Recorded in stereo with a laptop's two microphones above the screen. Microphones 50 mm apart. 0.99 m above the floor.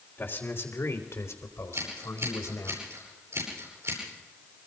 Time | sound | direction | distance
0.2 | a man speaking | 45° left (ahead or behind) | 3.5 m
1.7 | scissors | 65° right (ahead or behind) | 9.5 m